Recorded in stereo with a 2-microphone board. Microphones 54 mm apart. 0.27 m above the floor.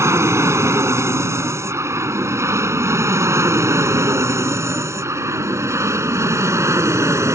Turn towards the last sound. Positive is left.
turn(degrees=-65)  # may be behind; listen again after turning